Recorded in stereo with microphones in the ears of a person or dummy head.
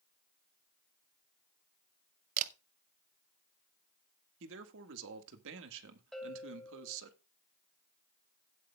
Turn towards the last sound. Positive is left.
turn(degrees=0)  # may be behind; listen again after turning